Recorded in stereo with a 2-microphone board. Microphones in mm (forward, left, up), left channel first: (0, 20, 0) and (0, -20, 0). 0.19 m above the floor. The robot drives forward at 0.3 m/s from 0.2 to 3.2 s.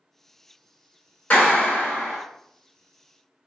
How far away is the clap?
About 1.5 m.